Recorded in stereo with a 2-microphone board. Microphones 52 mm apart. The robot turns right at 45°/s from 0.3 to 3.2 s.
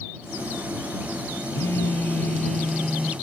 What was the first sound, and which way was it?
A phone buzzing, 125° left.